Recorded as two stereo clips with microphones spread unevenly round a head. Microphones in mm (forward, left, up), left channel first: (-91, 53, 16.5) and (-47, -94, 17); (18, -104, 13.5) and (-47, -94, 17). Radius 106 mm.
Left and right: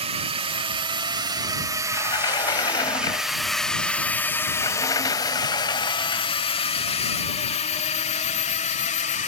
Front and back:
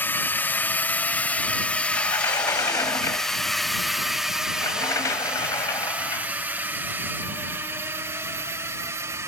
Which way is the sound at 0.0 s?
45° right.